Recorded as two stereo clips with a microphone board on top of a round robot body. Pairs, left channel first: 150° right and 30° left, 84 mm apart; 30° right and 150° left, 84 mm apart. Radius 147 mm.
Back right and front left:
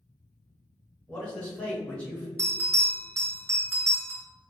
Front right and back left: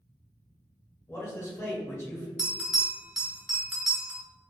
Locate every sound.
1.1 s a man speaking: 80° right, 1.6 m
2.4 s a bell: 65° left, 1.0 m